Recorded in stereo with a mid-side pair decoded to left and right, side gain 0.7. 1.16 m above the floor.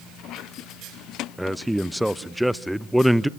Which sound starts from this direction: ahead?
A man speaking, at 1.4 s.